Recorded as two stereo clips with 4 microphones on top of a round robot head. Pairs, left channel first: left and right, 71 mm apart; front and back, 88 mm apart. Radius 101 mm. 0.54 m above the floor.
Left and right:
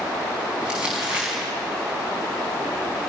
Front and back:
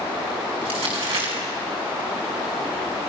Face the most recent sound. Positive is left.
turn(degrees=-165)